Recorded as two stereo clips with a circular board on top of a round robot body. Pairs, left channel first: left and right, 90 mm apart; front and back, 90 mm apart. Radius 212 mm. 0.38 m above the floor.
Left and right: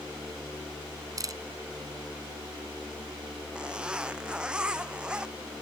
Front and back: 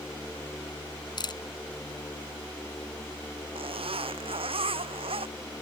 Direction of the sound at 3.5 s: 170° right.